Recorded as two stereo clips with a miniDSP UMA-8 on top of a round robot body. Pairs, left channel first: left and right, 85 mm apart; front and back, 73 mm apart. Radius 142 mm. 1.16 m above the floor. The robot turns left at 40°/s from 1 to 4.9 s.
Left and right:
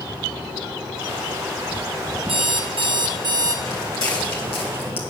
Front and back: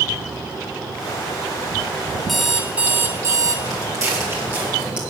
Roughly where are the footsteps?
Behind left.